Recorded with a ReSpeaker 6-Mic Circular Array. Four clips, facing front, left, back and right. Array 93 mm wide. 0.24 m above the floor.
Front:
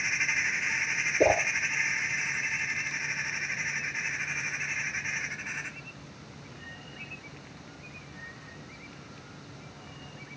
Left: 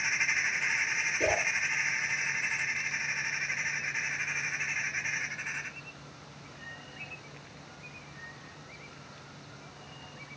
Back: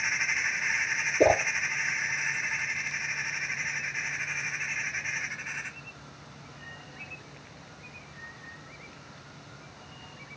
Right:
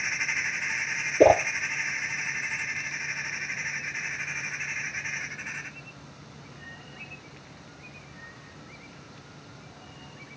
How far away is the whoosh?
About 0.8 m.